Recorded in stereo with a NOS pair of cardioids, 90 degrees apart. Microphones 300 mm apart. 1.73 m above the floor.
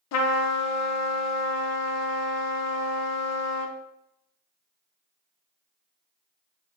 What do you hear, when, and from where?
0.1 s a trumpet: 60° left, 0.6 m